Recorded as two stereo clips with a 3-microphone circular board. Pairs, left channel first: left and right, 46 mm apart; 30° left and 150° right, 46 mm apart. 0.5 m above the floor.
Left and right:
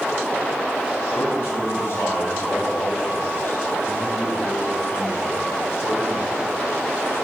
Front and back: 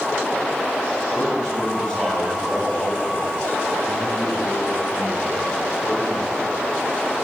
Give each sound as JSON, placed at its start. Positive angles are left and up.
{"t": 1.1, "sound": "a man speaking", "azimuth_deg": 115, "distance_m": 4.0}